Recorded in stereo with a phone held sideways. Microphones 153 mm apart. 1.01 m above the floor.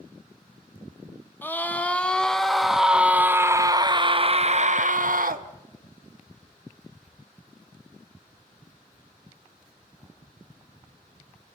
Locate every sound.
1.4 s a scream: 15° left (ahead or behind), 1.8 m; by 5.5 s 70° right (ahead or behind), 1.1 m